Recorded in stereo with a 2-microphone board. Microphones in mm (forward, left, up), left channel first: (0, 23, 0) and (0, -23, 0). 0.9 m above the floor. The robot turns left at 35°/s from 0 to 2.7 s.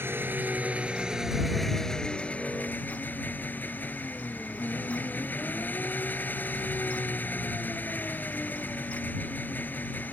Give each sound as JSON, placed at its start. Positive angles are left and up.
{"t": 0.0, "sound": "an engine running", "azimuth_deg": -125}